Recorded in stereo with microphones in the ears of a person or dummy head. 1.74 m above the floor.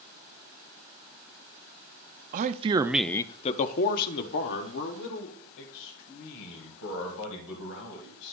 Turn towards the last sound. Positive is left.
turn(degrees=75)  # may be behind; listen again after turning